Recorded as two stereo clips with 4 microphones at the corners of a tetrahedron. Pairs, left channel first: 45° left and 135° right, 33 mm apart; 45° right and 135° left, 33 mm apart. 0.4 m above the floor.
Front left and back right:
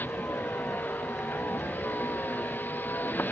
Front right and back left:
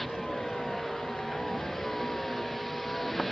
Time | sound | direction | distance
0.0 | a vehicle | 40° left | ?